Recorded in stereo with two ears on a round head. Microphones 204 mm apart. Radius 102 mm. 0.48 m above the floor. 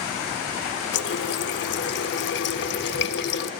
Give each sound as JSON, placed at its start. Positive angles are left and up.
{"t": 0.9, "sound": "a running tap", "side_deg": 50, "distance_m": 0.8}